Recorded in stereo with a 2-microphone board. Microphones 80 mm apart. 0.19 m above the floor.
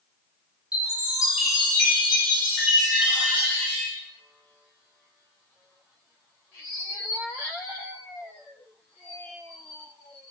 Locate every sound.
0.7 s a chime: 15° right (ahead or behind), 1.6 m